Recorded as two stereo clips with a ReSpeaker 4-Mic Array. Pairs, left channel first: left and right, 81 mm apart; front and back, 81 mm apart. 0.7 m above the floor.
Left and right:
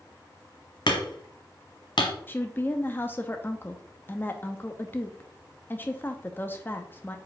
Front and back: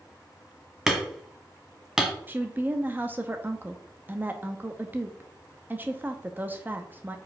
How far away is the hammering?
About 1.3 m.